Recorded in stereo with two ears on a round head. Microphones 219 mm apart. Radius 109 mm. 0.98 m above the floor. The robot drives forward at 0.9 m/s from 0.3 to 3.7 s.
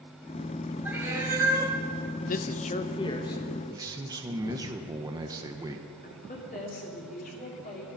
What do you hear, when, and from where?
0.8 s a cat meowing: 10° right (ahead or behind), 1.7 m; by 1.8 s 15° right (ahead or behind), 1.0 m
2.3 s a man speaking: 35° left (ahead or behind), 0.6 m; by 3.6 s 15° left (ahead or behind), 1.4 m
3.7 s a man speaking: 15° right (ahead or behind), 0.8 m
6.0 s a woman speaking: 35° left (ahead or behind), 2.5 m